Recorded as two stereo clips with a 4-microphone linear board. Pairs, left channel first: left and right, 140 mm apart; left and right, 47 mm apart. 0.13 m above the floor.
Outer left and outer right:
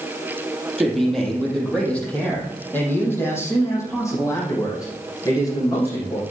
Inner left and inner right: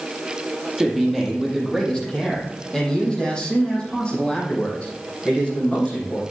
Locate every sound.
0.8 s a man speaking: centre (ahead or behind), 4 m; by 6.2 s 30° left (ahead or behind), 7 m